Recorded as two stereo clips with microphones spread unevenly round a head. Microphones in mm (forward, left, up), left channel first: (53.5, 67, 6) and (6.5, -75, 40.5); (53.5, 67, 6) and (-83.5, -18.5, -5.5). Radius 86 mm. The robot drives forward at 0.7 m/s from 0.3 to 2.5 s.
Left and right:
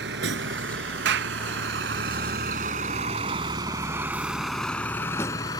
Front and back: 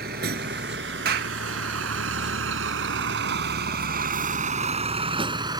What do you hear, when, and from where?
0.0 s a vehicle: 105° right; by 5.6 s 145° left
1.1 s a clap: 120° right; by 1.4 s 130° right